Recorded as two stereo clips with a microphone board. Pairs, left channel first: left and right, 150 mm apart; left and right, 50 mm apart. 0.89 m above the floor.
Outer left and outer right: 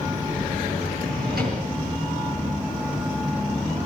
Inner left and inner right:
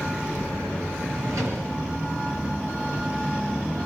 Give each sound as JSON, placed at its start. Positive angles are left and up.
{"t": 1.0, "sound": "a drawer", "side_deg": -90, "distance_m": 8.5}